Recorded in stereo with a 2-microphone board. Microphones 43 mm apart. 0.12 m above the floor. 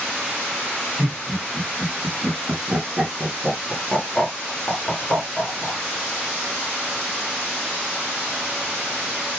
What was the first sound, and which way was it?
Laughter, 45° right (ahead or behind).